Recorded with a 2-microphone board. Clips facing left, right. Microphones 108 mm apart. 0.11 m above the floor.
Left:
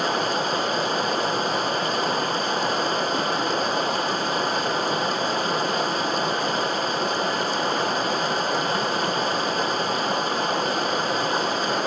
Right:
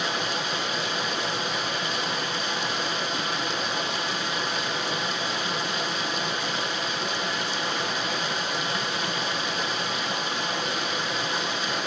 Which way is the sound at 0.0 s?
40° left (ahead or behind).